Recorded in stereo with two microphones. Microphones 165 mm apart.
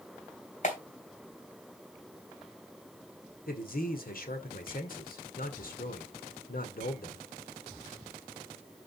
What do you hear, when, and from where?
0.6 s a clap: 50° left (ahead or behind), 3 m
3.5 s a man speaking: 60° left (ahead or behind), 2 m